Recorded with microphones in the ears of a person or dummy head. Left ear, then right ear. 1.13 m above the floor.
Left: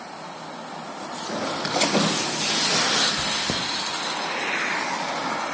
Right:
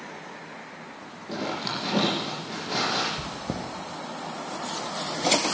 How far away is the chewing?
About 1.3 m.